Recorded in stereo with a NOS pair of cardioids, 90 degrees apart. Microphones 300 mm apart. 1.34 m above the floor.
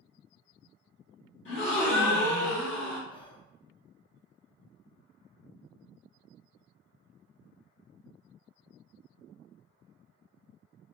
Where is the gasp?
40° left, 1.5 m.